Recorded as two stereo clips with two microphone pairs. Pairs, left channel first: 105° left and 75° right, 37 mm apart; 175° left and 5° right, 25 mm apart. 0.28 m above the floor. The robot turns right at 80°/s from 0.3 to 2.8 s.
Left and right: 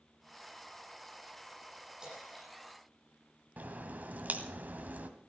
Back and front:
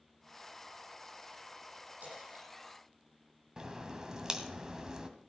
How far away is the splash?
About 9 m.